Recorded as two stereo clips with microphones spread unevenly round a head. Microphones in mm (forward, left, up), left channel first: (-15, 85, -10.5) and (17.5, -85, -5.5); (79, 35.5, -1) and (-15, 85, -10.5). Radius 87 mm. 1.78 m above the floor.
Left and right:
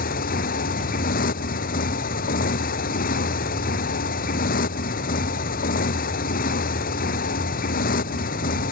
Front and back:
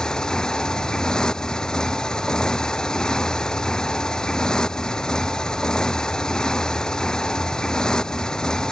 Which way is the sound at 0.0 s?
55° left.